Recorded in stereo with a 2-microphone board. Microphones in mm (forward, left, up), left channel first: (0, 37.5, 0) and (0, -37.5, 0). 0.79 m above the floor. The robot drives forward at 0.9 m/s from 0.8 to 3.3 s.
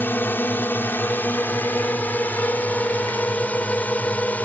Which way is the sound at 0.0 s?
30° left (ahead or behind).